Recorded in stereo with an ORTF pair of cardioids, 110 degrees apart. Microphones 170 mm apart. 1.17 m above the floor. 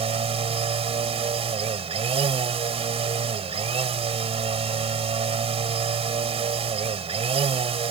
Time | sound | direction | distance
0.0 | a machine running | 35° right | ?